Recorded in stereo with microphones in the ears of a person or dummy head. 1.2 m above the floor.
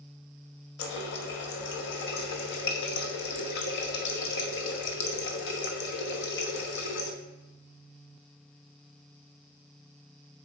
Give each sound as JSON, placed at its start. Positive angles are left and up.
{"t": 0.8, "sound": "a running tap", "side_deg": 65, "distance_m": 0.8}